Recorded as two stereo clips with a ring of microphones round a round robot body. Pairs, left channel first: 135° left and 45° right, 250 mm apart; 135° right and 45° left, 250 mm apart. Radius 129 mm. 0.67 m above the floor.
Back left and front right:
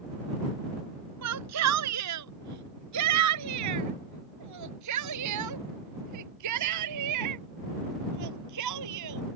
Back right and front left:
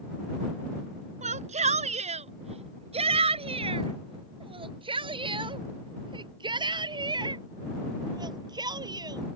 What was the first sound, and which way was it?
A shout, 20° right.